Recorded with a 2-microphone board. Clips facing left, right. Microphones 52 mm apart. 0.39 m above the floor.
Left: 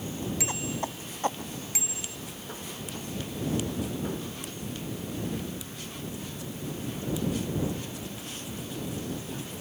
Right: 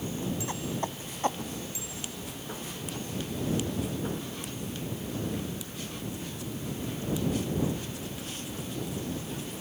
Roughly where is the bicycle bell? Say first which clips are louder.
Even; left.